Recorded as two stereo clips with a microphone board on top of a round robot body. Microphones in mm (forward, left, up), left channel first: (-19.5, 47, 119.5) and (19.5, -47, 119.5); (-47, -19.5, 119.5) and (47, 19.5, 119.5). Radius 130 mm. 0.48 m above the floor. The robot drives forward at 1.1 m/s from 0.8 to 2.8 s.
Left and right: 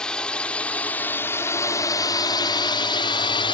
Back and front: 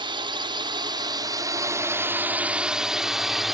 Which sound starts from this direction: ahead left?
A drone, at 0.0 s.